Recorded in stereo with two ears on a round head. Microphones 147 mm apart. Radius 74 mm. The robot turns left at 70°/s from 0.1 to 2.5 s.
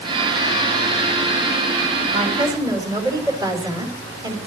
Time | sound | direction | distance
2.1 | a woman speaking | 50° right (ahead or behind) | 5 m